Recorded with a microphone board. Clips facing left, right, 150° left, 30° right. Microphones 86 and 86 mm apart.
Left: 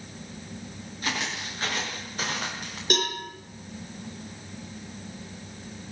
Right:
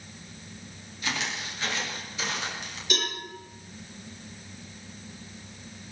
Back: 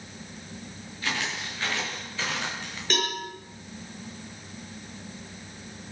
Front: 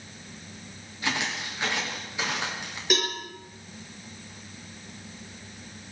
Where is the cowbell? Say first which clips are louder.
Left 5 dB, front 1 dB; 50° left, 6.5 m.